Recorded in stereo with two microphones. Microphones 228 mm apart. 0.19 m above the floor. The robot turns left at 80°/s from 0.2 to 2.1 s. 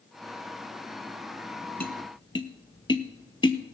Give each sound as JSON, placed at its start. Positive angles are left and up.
{"t": 1.8, "sound": "tapping", "side_deg": 45, "distance_m": 0.8}